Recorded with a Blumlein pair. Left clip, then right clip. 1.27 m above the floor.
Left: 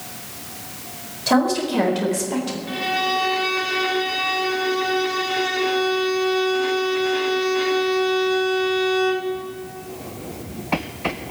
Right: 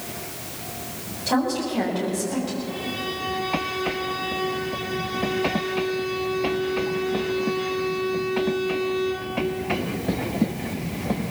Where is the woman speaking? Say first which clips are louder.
Left 5 dB; 70° left, 4.5 m; by 2.6 s 65° left, 3.5 m.